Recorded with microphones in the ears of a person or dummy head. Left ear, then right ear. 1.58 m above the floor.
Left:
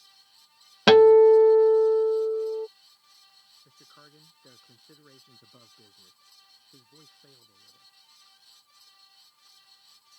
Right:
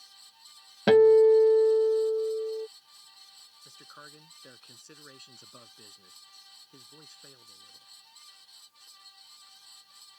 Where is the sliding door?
I don't hear a sliding door.